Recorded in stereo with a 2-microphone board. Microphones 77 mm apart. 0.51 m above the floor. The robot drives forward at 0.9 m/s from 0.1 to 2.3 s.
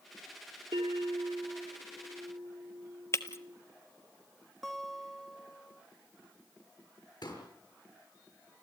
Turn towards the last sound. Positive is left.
turn(degrees=70)  # may be behind; listen again after turning